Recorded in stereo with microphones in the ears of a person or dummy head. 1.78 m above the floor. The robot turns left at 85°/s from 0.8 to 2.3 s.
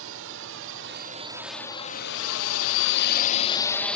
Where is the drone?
75° right (ahead or behind); by 4.0 s 5° left (ahead or behind).